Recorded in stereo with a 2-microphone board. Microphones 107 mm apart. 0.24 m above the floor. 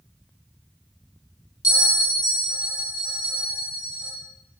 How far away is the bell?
About 1.1 m.